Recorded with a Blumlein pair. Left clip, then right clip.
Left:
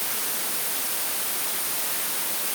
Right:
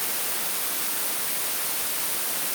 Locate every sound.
Only background noise.